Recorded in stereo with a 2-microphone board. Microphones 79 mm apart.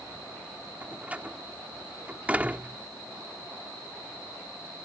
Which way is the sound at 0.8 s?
20° right (ahead or behind).